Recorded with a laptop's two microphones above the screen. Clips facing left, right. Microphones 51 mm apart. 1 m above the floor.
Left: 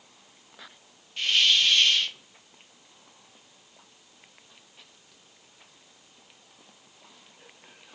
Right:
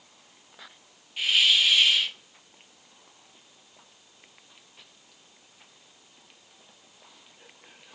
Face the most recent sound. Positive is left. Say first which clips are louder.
# right 1 dB
turn(degrees=-10)  # may be behind; listen again after turning